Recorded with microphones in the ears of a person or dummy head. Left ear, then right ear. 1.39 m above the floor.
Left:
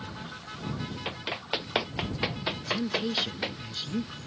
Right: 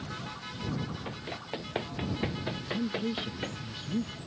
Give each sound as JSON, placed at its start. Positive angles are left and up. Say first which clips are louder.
{"t": 1.1, "sound": "running footsteps", "louder": "left 6 dB", "side_deg": 55}
{"t": 2.6, "sound": "a woman speaking", "louder": "left 4 dB", "side_deg": 35}